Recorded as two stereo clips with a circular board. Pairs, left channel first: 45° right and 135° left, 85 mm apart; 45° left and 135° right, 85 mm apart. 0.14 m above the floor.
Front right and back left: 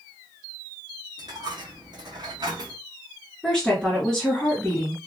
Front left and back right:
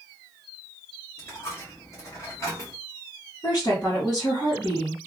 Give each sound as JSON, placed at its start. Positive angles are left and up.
{"t": 1.2, "sound": "a dropped coin", "azimuth_deg": 100, "distance_m": 1.5}
{"t": 3.4, "sound": "a woman speaking", "azimuth_deg": 35, "distance_m": 1.6}